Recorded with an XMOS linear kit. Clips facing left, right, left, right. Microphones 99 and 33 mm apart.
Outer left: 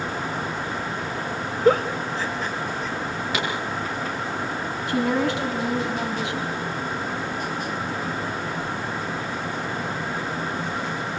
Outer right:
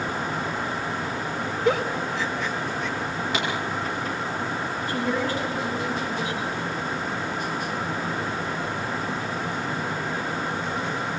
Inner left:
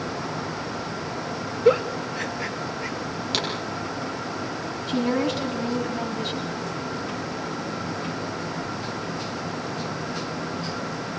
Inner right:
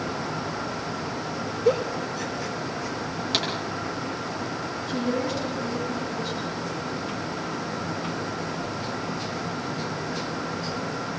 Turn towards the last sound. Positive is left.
turn(degrees=70)  # may be behind; listen again after turning